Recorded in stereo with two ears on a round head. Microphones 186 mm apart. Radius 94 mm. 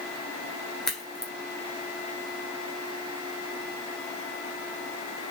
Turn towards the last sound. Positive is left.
turn(degrees=0)  # may be behind; listen again after turning